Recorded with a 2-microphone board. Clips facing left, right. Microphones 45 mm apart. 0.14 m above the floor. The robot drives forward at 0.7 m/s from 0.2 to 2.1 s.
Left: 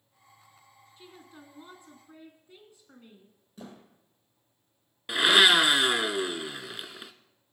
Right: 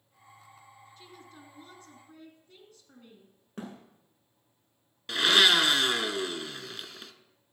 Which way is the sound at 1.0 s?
20° left (ahead or behind).